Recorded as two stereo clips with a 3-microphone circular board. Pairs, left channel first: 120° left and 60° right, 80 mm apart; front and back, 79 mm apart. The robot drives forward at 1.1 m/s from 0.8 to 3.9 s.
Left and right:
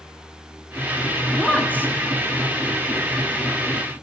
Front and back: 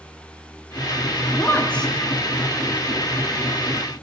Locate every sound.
1.3 s a woman speaking: 40° left, 1.3 m; by 1.9 s 85° left, 1.1 m